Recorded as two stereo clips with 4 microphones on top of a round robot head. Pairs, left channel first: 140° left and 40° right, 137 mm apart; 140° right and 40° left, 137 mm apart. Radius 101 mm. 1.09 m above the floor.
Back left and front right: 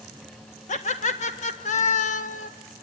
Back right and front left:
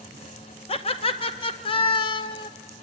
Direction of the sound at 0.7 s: 175° left.